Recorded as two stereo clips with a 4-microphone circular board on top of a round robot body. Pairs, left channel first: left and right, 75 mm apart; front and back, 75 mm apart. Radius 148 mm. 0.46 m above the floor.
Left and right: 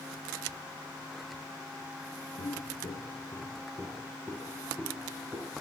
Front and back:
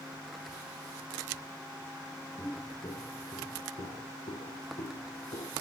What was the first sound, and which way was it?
Footsteps, 70° left.